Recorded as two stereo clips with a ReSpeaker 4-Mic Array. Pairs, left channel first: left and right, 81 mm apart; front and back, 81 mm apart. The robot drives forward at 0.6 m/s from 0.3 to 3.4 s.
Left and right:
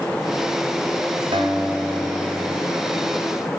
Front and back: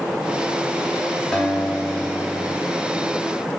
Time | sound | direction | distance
1.3 | a guitar | 80° right | 3 m